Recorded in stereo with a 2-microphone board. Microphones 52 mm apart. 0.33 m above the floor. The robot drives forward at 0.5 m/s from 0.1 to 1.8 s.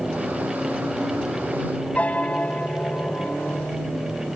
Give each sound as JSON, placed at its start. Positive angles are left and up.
{"t": 1.9, "sound": "a piano", "side_deg": 25}